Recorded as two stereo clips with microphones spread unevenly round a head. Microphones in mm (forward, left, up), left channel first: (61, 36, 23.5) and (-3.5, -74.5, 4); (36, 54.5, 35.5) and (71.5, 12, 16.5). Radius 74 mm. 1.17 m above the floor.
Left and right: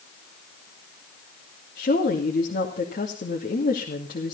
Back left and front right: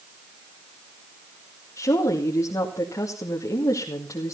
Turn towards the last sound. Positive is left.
turn(degrees=95)